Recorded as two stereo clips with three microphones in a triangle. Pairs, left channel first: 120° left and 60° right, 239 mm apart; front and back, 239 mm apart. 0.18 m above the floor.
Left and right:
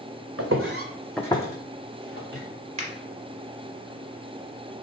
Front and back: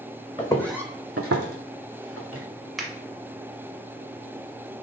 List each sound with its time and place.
0.4 s footsteps: 70° right, 0.9 m; by 2.4 s 155° left, 1.8 m
2.8 s a finger snap: 90° right, 1.0 m